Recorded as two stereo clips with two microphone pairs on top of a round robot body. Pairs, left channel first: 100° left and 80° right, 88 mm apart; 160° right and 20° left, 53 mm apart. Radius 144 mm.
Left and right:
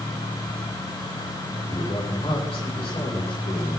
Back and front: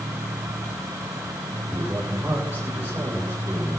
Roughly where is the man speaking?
Left.